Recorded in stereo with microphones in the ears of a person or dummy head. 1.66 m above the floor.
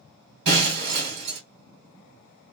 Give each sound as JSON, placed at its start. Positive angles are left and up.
{"t": 0.5, "sound": "breaking glass", "side_deg": -65, "distance_m": 2.5}